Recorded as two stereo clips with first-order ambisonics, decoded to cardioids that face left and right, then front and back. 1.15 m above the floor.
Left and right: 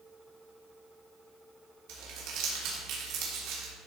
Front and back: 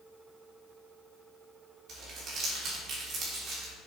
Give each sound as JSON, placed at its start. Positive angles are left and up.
{"t": 1.9, "sound": "crumpling", "azimuth_deg": -120, "distance_m": 3.5}